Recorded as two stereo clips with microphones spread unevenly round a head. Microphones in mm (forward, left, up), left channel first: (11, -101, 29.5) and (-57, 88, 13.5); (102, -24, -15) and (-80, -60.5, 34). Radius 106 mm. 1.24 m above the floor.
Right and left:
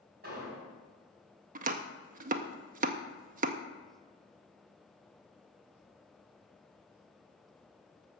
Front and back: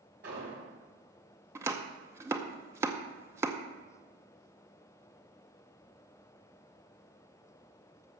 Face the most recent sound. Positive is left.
turn(degrees=140)